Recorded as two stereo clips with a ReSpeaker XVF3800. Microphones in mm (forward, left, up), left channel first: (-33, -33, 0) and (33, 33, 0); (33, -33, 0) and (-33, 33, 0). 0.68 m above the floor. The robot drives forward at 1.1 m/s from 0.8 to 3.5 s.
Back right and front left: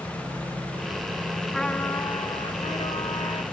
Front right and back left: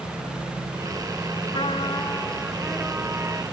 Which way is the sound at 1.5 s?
50° right.